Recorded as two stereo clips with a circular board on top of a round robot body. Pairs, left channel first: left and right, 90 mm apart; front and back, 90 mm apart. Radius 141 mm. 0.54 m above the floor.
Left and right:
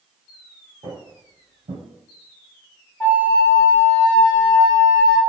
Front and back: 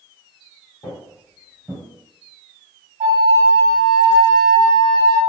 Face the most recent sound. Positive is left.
turn(degrees=170)